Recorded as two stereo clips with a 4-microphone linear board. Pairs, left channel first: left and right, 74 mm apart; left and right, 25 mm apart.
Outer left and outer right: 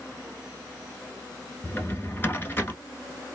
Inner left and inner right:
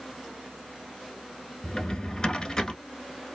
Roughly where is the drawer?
Left.